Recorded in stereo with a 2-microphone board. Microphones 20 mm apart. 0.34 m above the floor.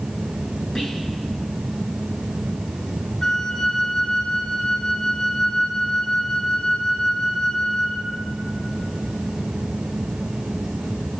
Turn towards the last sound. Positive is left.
turn(degrees=35)  # may be behind; listen again after turning